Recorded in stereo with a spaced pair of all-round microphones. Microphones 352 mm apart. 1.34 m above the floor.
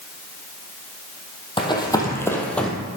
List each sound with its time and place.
1.6 s running footsteps: 15° left (ahead or behind), 2.5 m; by 2.7 s centre (ahead or behind), 2 m